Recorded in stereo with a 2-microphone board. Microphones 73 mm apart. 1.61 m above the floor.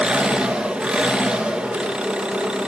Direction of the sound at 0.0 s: 10° right (ahead or behind).